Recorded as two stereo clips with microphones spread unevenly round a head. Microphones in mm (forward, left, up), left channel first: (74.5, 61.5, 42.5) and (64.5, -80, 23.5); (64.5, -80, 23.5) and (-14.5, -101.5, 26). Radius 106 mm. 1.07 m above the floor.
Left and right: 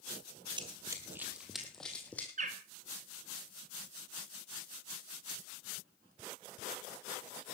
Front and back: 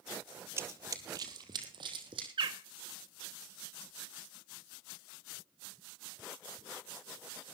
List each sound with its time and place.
0.6 s running footsteps: 150° right, 1.2 m; by 2.3 s 165° left, 2.5 m
2.4 s a bird: 140° right, 1.8 m